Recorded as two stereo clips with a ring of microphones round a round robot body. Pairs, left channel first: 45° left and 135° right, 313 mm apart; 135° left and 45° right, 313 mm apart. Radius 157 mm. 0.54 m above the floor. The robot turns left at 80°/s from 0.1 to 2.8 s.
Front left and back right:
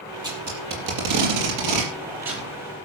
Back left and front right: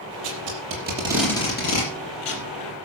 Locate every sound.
0.2 s tape being pulled: 55° right, 5 m; by 2.5 s 125° left, 5 m